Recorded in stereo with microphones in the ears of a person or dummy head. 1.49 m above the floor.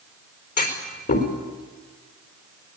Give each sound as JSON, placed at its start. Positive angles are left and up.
{"t": 0.6, "sound": "a clunk", "side_deg": 55, "distance_m": 4.0}